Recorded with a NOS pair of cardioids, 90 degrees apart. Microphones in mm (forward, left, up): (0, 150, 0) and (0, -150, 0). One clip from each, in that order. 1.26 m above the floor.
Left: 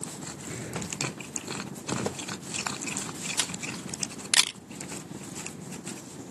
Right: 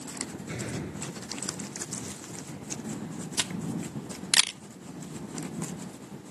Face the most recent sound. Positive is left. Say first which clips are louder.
# right 2 dB
turn(degrees=0)